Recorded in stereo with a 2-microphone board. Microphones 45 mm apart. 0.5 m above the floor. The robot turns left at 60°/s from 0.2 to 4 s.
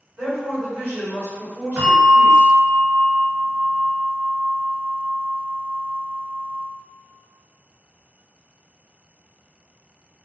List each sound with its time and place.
0.2 s a woman speaking: 60° right, 1.7 m; by 2.5 s 160° left, 1.7 m
1.8 s a bell: 70° right, 1.9 m; by 6.7 s 155° left, 1.9 m